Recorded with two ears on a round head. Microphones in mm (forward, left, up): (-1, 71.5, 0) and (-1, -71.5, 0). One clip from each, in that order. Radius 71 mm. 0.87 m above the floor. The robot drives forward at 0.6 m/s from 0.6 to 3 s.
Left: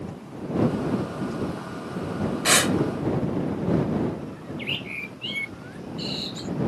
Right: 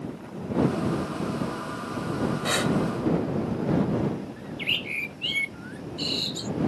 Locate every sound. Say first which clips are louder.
2.5 s breathing: left 7 dB; 55° left (ahead or behind); by 2.8 s 50° left (ahead or behind)
4.4 s a bird: right 5 dB; 20° right (ahead or behind)